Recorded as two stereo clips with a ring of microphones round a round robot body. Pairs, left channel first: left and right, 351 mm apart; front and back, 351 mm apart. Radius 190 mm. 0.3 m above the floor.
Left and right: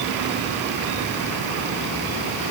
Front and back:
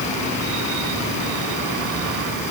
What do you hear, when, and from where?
Only background noise.